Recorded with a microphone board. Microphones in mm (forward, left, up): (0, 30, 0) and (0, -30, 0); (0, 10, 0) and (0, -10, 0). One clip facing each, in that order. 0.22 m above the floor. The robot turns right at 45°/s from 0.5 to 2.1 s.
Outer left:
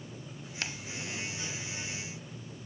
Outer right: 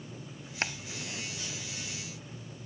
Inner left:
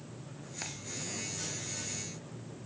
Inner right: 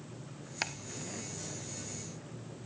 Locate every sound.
0.6 s ticking: 35° right (ahead or behind), 0.9 m; by 0.7 s 30° right (ahead or behind), 0.9 m